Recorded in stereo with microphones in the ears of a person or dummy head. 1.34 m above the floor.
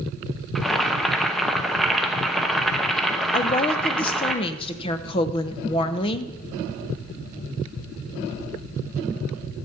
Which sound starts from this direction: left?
A woman speaking, at 3.3 s.